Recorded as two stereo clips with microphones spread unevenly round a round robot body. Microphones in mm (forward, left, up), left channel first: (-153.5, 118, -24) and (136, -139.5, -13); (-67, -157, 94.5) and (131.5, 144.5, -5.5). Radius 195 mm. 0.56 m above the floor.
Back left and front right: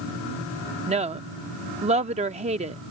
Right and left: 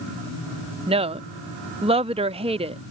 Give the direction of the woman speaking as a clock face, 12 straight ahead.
11 o'clock.